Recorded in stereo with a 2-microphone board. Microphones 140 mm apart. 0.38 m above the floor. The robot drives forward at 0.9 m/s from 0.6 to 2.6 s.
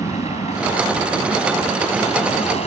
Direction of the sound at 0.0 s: 50° left (ahead or behind).